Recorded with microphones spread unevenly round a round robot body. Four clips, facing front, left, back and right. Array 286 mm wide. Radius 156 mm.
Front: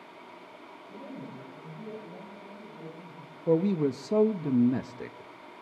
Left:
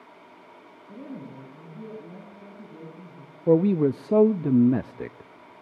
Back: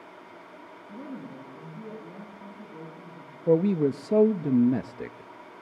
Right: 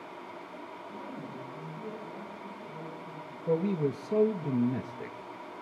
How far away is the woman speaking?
About 7.5 m.